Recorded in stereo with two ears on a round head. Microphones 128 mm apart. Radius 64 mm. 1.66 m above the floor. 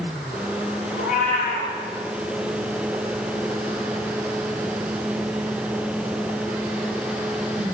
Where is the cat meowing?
55° left (ahead or behind), 3 m.